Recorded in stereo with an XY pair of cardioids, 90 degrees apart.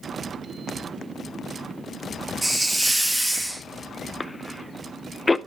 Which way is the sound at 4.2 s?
20° left.